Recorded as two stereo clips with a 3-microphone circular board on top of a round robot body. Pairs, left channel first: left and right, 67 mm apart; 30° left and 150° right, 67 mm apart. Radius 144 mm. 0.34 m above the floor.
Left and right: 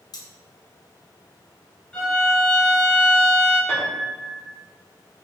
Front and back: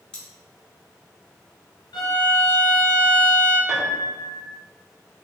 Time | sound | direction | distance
0.1 | cutlery clinking | 110° left | 1.2 m
1.9 | a violin | 15° left | 0.6 m
3.7 | a piano | 130° left | 1.7 m